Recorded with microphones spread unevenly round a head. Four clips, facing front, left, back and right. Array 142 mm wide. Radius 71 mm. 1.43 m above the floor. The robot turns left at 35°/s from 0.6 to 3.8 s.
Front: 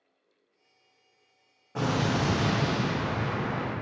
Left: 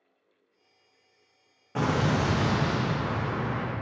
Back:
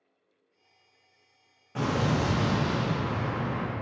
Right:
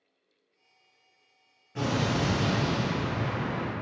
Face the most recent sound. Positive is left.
turn(degrees=0)